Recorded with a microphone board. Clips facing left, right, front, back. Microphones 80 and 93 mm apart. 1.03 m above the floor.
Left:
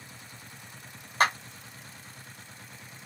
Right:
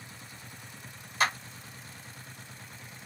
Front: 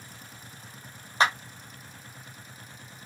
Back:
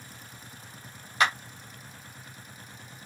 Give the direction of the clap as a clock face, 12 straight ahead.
10 o'clock.